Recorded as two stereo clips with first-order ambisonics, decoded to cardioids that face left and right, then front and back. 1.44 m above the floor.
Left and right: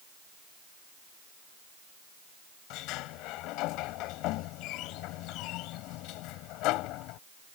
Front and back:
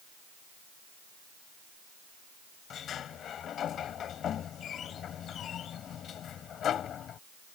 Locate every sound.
2.7 s a sliding door: 60° left